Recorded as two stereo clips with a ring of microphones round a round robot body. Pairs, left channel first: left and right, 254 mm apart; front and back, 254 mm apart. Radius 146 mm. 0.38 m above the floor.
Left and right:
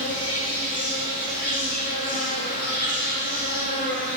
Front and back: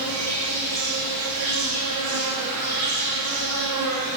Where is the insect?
155° left, 5.5 m.